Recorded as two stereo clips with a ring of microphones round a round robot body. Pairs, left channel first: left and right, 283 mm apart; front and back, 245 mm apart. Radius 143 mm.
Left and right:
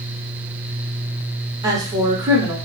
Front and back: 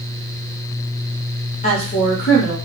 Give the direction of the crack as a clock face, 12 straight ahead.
No crack in this recording.